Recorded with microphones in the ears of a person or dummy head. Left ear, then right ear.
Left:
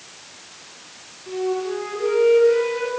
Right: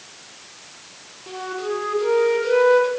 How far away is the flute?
About 1.2 m.